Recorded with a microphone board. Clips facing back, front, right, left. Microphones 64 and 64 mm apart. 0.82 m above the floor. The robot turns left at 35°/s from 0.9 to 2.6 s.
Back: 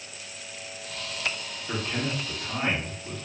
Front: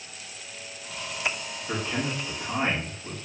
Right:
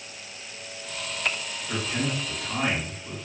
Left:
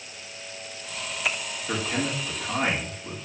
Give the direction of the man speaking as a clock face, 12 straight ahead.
9 o'clock.